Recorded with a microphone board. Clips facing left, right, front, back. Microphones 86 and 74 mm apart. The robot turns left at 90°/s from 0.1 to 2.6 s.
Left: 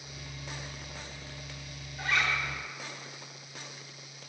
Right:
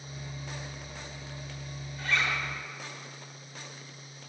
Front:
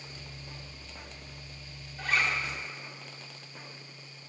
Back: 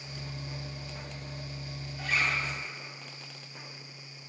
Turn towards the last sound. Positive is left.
turn(degrees=-30)